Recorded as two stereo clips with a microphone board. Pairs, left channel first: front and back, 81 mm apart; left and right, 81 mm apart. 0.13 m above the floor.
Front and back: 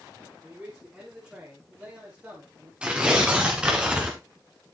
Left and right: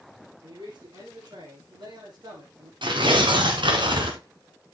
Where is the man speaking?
100° right, 8 m; by 2.7 s 110° right, 5.5 m.